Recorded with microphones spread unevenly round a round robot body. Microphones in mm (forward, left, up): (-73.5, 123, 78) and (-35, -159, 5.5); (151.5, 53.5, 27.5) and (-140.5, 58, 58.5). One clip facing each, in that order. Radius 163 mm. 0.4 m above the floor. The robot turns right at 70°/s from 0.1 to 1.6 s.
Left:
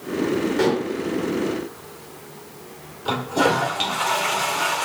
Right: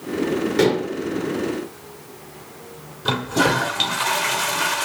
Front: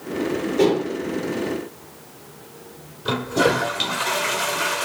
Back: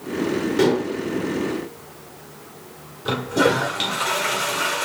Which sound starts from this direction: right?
A toilet flushing, at 3.0 s.